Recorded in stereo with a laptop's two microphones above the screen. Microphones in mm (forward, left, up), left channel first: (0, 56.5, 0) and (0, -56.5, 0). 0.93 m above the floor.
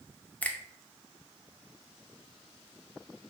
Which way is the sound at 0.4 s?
15° left (ahead or behind).